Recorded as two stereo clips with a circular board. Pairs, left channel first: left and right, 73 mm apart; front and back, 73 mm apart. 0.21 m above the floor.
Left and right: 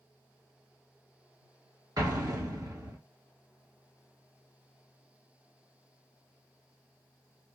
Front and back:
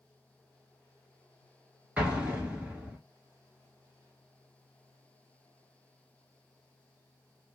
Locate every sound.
2.0 s an explosion: 110° right, 1.4 m